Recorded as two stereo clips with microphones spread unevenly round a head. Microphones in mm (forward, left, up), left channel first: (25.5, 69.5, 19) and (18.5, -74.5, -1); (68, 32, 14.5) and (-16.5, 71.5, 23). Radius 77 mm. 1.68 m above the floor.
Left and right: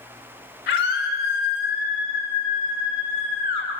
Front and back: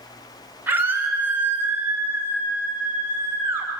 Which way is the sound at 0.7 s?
85° left.